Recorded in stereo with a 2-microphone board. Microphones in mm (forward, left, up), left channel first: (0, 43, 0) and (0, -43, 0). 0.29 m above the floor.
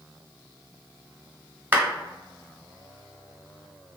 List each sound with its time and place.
1.7 s a clap: 25° right (ahead or behind), 1.1 m